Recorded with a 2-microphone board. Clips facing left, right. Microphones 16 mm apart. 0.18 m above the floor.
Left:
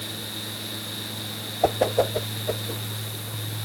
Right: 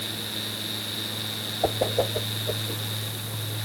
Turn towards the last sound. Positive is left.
turn(degrees=50)  # may be behind; listen again after turning